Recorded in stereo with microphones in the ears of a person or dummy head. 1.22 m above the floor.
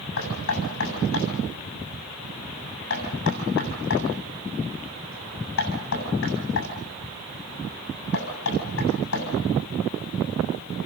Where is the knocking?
70° left (ahead or behind), 7.5 m.